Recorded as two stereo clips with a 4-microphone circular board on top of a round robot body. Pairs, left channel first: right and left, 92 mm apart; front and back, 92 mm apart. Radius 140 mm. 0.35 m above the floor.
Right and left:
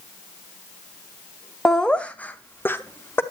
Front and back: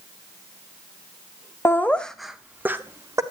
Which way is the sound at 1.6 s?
15° right.